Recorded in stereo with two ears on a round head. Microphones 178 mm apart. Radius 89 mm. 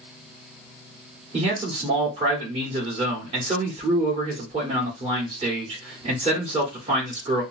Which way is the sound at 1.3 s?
30° right (ahead or behind).